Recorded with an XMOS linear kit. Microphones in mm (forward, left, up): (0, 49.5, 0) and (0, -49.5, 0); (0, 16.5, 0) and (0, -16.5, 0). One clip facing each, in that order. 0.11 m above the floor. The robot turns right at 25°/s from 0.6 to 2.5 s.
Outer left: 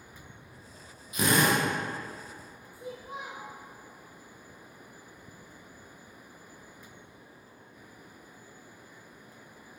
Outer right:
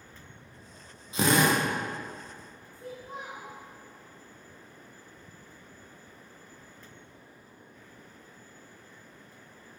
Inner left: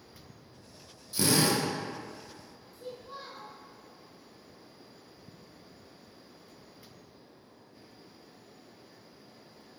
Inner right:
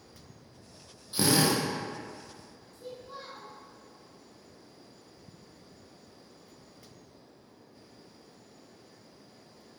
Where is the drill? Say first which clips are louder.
Outer right 1 dB, inner right 1 dB; 30° right (ahead or behind), 2 m; by 1.6 s 20° right (ahead or behind), 2 m.